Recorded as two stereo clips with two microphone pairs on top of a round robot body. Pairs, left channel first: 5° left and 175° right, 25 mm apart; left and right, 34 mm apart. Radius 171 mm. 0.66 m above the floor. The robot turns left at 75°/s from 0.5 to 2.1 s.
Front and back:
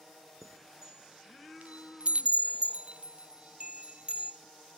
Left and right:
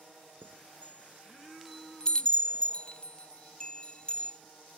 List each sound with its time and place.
0.4 s a chime: 90° right, 0.8 m; by 4.4 s 150° left, 0.8 m